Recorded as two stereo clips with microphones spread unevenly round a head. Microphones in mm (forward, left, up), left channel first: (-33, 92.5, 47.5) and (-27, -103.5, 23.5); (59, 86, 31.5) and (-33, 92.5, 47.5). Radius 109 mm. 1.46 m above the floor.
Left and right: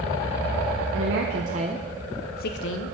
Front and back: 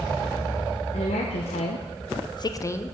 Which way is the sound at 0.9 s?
50° right.